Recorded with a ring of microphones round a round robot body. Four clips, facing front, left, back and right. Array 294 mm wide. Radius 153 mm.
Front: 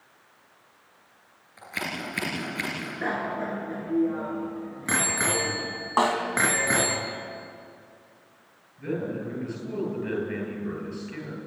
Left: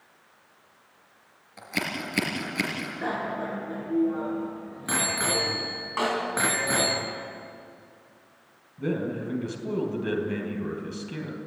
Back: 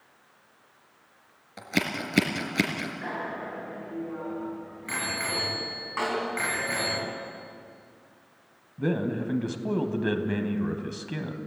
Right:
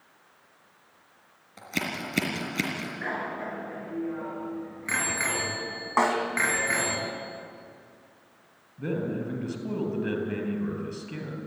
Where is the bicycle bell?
25° left, 4 m.